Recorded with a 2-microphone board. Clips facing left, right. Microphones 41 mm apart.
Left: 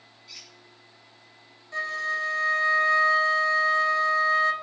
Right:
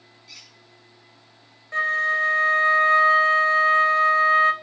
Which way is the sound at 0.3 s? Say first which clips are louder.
Right 1 dB; 10° left (ahead or behind).